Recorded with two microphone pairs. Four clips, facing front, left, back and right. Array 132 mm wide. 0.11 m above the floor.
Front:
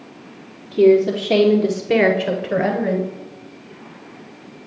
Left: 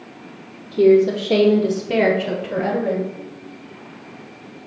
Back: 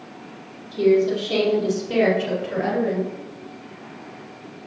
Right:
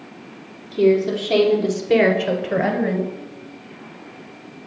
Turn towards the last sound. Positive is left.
turn(degrees=-45)